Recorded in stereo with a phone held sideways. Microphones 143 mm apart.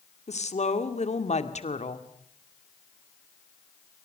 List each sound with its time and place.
0.3 s a woman speaking: 55° left (ahead or behind), 2 m